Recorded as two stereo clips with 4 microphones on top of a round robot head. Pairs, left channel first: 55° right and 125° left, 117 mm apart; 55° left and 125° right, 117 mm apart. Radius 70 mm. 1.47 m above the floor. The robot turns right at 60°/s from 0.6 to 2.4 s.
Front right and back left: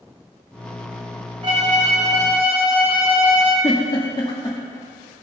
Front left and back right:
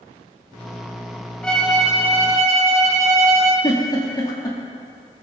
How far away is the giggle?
About 1.4 m.